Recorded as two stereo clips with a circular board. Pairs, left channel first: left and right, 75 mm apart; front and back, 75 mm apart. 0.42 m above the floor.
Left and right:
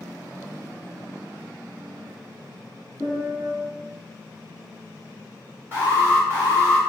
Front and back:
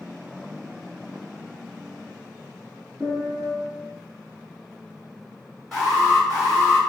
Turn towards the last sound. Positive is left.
turn(degrees=85)